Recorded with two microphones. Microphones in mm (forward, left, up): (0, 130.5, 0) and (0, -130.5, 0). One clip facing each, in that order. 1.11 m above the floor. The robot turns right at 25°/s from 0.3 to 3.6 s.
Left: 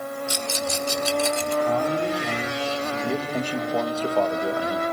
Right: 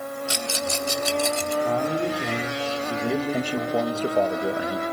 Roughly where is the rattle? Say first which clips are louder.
Even; right.